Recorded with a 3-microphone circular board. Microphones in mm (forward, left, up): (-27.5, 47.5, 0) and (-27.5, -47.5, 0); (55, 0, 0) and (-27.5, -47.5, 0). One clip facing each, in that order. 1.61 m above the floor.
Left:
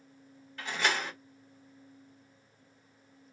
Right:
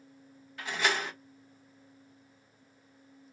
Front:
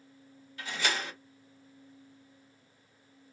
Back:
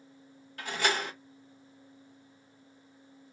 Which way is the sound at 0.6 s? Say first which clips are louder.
Right 1 dB, back 3 dB; 175° right.